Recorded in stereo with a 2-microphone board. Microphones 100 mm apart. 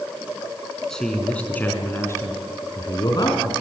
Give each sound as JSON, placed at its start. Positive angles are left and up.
{"t": 0.9, "sound": "a man speaking", "side_deg": 5, "distance_m": 3.5}